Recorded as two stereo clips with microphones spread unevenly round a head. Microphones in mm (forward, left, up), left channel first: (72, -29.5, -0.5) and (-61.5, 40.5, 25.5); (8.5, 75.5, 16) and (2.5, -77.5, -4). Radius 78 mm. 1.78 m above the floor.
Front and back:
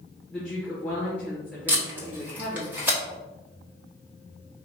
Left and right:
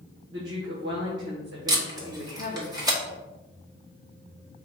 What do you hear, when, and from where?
0.3 s a woman speaking: 115° right, 1.3 m
1.7 s tape being pulled: 155° right, 1.2 m